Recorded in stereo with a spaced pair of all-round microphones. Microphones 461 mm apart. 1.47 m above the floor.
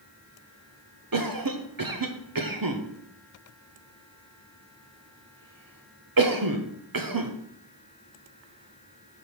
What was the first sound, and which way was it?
A cough, 45° right (ahead or behind).